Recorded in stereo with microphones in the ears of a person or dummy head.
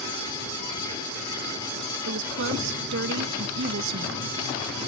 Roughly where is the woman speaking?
Right.